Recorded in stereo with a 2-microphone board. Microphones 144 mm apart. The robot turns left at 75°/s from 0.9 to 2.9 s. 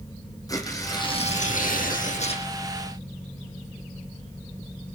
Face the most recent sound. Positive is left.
turn(degrees=5)